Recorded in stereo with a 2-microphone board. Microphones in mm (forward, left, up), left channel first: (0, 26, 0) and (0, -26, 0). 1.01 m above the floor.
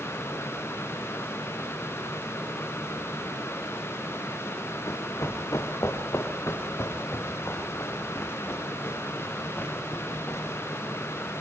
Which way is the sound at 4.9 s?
75° left (ahead or behind).